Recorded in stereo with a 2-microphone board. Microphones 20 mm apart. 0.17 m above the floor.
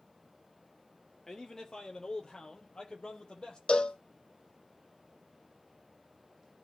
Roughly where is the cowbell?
Left.